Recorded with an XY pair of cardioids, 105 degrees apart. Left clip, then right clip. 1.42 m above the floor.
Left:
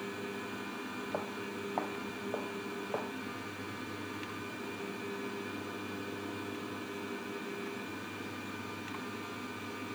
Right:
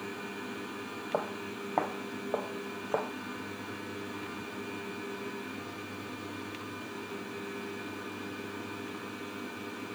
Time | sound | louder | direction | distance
1.1 | footsteps | right 7 dB | 40° right | ?